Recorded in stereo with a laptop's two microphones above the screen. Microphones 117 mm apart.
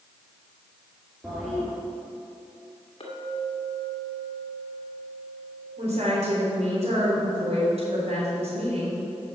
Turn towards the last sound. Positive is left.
turn(degrees=-65)  # may be behind; listen again after turning